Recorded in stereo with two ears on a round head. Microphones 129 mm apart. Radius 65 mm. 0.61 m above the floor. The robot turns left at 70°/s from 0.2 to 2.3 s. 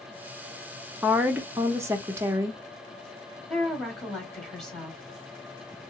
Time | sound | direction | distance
1.0 | a woman speaking | 5° right (ahead or behind) | 0.6 m
3.5 | a woman speaking | 5° left (ahead or behind) | 1.2 m